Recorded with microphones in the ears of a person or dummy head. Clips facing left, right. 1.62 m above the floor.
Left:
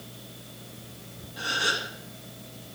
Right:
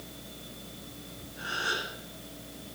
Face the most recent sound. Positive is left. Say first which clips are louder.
# left 4 dB
turn(degrees=85)